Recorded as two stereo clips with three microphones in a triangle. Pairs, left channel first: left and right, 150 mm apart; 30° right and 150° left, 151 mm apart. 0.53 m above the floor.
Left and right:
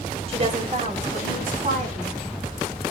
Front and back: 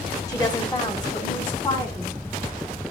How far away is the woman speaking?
About 1.4 m.